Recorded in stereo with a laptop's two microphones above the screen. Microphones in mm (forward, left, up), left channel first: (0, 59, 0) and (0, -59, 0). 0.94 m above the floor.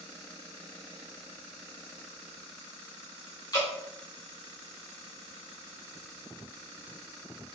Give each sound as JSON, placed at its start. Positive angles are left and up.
{"t": 3.5, "sound": "dripping", "side_deg": 35, "distance_m": 1.6}